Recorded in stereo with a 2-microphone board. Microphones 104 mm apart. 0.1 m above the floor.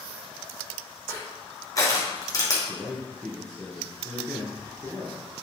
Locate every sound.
1.1 s crushing: 35° left (ahead or behind), 2.5 m
2.7 s a man speaking: 5° left (ahead or behind), 2 m